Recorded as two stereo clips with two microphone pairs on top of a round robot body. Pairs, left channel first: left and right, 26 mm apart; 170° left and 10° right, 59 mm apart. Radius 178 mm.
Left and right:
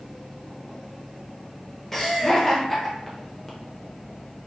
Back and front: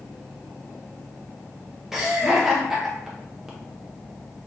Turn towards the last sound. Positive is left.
turn(degrees=65)